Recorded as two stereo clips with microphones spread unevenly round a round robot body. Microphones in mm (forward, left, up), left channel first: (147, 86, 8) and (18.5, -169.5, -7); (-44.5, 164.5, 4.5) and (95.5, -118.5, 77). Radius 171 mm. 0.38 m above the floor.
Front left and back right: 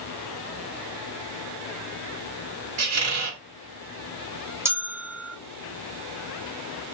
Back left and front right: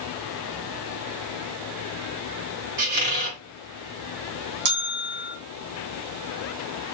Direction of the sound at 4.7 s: 40° right.